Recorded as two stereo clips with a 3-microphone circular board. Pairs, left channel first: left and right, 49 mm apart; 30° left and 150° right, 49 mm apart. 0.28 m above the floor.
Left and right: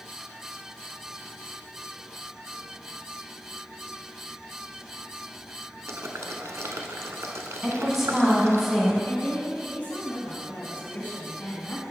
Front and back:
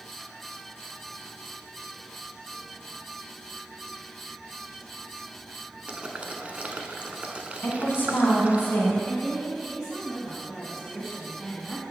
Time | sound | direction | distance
5.9 | boiling | 90° right | 0.7 m
7.6 | a woman speaking | 5° right | 1.8 m
9.1 | a woman speaking | 115° left | 2 m